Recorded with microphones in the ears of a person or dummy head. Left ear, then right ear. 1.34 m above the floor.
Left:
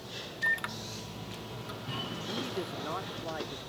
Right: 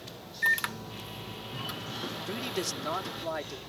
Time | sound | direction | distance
0.4 | a microwave | 30° right (ahead or behind) | ?
2.3 | a man speaking | 85° right | ?